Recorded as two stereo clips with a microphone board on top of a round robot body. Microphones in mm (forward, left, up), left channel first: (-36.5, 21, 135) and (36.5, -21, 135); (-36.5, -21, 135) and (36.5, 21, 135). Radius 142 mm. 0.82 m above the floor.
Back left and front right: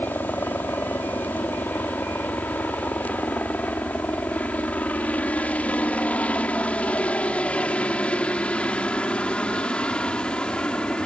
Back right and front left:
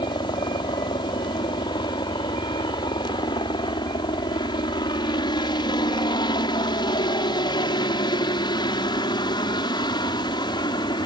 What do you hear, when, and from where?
0.0 s a helicopter: 145° right; by 11.1 s 130° right